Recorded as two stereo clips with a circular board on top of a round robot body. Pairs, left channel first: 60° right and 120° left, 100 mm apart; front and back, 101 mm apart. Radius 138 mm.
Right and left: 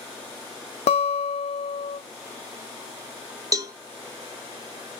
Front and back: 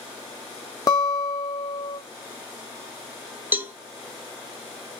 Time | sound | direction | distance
0.9 | a guitar | 55° right | 0.8 m
3.5 | a cowbell | 125° left | 0.8 m